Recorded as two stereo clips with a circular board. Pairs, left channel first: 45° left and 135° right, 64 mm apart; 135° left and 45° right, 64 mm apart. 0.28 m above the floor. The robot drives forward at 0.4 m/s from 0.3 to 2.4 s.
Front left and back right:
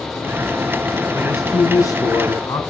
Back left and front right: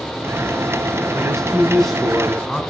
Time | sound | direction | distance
1.1 | a man speaking | 45° left | 3 m